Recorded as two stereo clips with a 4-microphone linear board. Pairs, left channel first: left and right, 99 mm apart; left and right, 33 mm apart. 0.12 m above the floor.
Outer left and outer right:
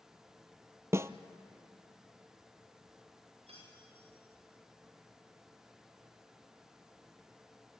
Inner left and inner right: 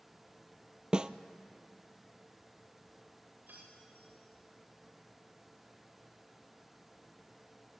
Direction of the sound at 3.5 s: 75° right (ahead or behind).